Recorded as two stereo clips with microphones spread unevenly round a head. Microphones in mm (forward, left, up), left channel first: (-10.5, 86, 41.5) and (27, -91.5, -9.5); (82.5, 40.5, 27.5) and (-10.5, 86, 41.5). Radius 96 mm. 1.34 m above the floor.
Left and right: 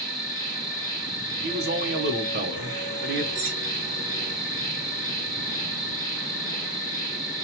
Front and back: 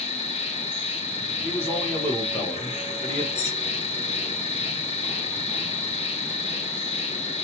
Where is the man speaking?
100° right, 0.9 m.